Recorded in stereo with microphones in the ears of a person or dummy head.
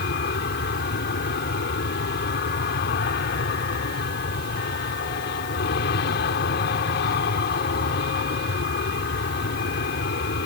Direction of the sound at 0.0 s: 55° left (ahead or behind).